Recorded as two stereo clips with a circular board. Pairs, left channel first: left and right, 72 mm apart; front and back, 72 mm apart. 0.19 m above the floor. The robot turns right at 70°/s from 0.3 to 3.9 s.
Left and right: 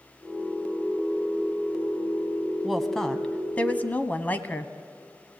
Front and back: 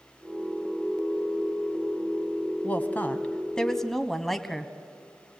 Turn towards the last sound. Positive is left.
turn(degrees=80)